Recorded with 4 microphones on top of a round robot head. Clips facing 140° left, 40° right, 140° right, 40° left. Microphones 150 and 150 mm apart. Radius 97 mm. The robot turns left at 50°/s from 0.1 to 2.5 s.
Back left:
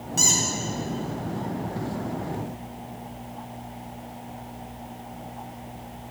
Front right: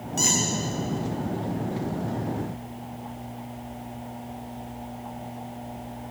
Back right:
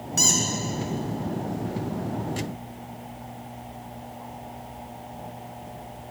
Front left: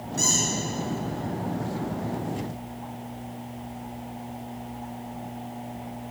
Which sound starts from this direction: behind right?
A squeak, at 0.2 s.